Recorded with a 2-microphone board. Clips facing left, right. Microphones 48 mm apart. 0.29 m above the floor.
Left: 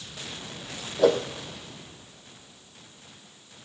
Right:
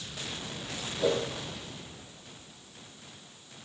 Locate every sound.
1.0 s a whoosh: 75° left (ahead or behind), 2.5 m